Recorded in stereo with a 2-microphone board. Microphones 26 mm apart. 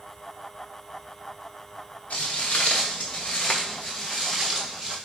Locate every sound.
2.1 s footsteps: 70° left (ahead or behind), 1.3 m; by 5.0 s 10° right (ahead or behind), 1.3 m